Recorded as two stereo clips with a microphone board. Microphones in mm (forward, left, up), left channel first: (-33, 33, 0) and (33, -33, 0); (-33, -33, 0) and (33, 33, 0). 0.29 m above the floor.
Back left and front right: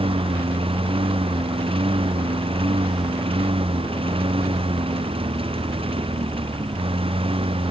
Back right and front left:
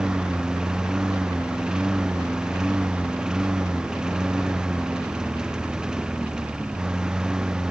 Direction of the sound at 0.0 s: 35° right.